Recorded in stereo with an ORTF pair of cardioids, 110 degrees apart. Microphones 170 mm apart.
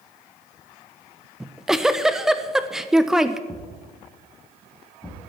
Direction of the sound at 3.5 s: 10° left.